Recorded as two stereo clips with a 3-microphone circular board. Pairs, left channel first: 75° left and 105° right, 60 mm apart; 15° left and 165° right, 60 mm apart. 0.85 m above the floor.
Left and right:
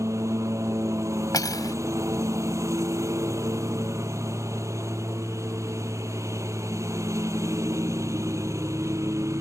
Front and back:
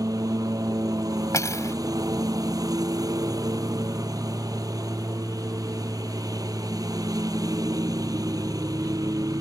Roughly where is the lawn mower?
Behind right.